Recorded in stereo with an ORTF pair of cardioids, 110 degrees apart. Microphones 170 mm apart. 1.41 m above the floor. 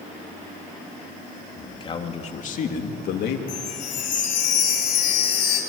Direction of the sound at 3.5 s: 50° left.